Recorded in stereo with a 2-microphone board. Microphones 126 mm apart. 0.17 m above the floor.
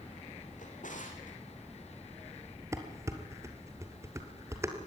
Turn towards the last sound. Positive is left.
turn(degrees=-20)  # may be behind; listen again after turning